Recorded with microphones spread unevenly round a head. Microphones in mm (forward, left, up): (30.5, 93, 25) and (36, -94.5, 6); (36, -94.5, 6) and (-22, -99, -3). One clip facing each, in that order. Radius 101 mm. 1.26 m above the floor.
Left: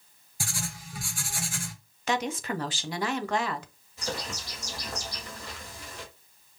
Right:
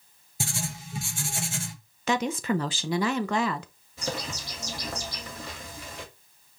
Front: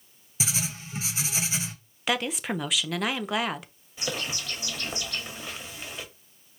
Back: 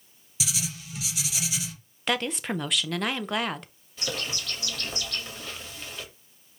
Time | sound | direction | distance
0.4 | writing | 45° right | 0.7 m
2.1 | a woman speaking | 80° right | 0.6 m
4.0 | a bird | 70° right | 1.9 m